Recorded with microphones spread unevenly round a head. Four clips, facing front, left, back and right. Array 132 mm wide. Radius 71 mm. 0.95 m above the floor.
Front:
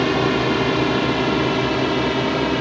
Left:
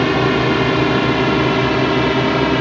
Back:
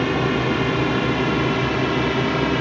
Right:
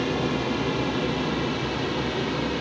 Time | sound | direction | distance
0.0 | a drone | 70° left | ?